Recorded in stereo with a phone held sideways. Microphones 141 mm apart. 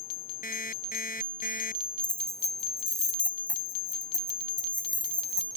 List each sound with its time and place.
0.4 s an alarm clock: 75° left (ahead or behind)
2.0 s keys jangling: 25° right (ahead or behind)